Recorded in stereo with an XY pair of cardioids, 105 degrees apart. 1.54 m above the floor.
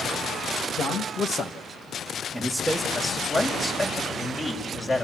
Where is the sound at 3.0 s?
30° left, 6.5 m.